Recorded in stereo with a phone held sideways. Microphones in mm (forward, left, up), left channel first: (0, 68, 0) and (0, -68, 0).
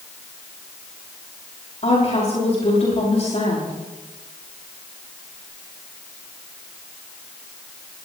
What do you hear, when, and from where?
1.8 s a woman speaking: 55° left (ahead or behind), 6 m